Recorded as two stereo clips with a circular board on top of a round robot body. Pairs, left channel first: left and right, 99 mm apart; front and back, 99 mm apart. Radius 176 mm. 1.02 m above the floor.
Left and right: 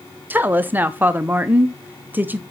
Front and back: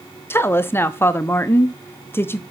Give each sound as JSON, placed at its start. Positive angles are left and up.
{"t": 0.3, "sound": "a woman speaking", "azimuth_deg": -40, "distance_m": 0.7}